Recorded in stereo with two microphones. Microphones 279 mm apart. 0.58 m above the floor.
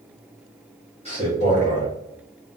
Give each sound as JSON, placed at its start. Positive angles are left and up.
{"t": 1.1, "sound": "a man speaking", "side_deg": 25, "distance_m": 1.2}